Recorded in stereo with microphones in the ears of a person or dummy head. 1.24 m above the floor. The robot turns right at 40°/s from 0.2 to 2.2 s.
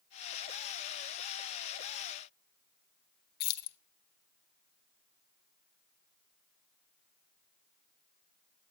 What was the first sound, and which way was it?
Keys jangling, 60° left (ahead or behind).